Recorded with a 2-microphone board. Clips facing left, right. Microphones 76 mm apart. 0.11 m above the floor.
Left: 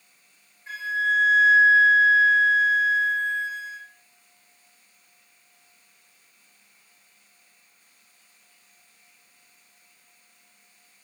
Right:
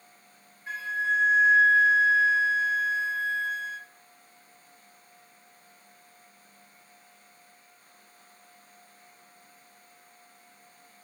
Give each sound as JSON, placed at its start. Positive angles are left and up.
{"t": 0.7, "sound": "a flute", "side_deg": 0, "distance_m": 1.5}